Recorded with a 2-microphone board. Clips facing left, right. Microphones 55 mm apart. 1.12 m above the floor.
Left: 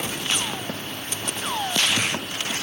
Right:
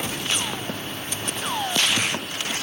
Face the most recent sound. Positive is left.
No sound to turn to.